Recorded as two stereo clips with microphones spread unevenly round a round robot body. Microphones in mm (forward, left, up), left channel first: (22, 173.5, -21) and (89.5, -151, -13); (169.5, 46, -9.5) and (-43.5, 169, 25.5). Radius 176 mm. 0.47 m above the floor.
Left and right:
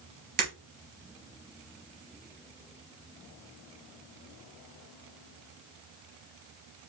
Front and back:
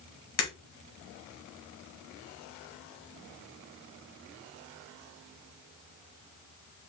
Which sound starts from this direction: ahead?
Breaking glass, at 0.4 s.